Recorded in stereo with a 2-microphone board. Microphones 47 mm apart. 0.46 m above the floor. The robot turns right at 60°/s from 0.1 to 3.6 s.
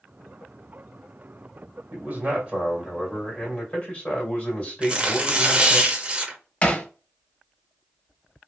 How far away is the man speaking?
About 2 m.